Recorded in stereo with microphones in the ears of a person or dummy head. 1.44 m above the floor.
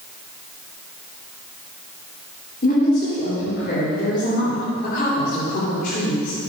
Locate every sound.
2.6 s a woman speaking: 55° left (ahead or behind), 3.5 m